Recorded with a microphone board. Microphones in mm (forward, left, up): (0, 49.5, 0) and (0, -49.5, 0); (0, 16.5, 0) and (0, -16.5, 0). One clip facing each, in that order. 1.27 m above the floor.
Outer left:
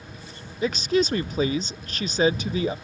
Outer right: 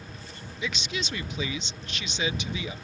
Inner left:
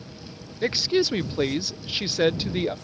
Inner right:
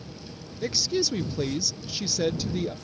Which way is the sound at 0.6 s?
40° left (ahead or behind).